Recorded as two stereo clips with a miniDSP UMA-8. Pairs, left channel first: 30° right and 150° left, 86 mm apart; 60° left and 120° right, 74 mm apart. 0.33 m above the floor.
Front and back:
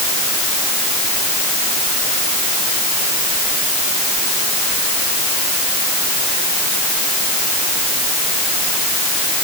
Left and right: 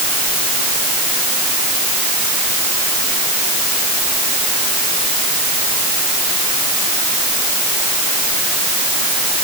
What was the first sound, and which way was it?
Only background noise.